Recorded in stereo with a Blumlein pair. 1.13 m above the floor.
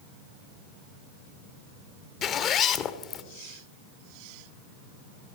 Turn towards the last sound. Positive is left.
turn(degrees=30)